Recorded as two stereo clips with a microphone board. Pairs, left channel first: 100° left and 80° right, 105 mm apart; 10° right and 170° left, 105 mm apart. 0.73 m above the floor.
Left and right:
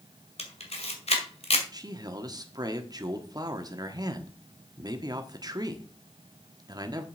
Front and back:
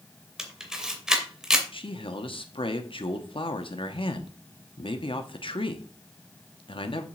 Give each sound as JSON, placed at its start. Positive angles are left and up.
{"t": 0.4, "sound": "a camera shutter", "azimuth_deg": 85, "distance_m": 2.0}
{"t": 1.7, "sound": "a man speaking", "azimuth_deg": -35, "distance_m": 1.3}